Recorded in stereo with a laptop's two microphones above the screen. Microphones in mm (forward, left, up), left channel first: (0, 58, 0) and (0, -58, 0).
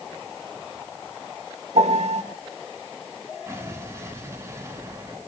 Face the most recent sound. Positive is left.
turn(degrees=-25)  # may be behind; listen again after turning